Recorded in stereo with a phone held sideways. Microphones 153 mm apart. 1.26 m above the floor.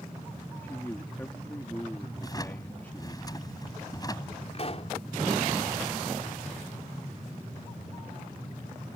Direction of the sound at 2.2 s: 25° left (ahead or behind).